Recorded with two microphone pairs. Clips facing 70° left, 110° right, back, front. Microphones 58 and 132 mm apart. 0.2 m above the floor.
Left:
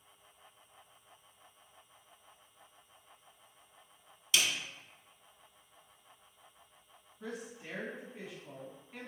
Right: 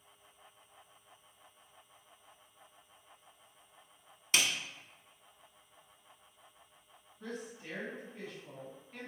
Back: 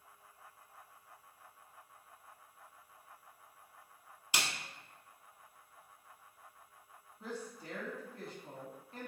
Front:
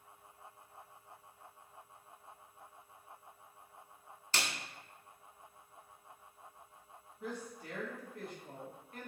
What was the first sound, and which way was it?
A snare drum, 110° right.